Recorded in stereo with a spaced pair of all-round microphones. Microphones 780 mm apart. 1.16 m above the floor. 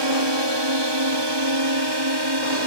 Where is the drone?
35° right (ahead or behind); by 2.7 s 30° right (ahead or behind).